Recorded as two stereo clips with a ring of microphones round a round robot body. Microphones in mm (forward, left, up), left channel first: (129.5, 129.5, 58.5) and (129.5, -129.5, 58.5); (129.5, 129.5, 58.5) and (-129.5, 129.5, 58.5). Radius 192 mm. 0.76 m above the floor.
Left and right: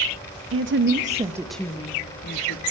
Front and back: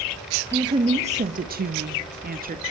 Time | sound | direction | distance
0.5 | a woman speaking | 105° right | 1.5 m